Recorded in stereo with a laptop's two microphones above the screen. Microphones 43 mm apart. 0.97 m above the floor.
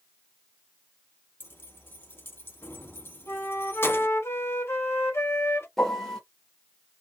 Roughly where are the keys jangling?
Left.